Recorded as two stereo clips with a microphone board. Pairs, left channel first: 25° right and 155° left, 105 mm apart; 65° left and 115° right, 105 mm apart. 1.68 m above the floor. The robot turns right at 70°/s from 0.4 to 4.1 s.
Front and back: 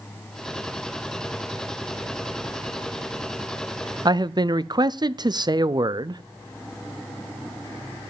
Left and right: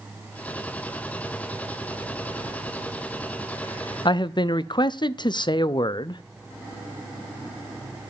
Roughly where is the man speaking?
Left.